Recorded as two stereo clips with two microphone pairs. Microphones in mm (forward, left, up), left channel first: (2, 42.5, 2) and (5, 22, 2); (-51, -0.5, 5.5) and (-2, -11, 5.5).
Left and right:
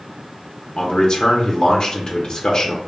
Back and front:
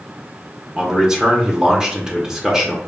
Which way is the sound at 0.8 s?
55° left.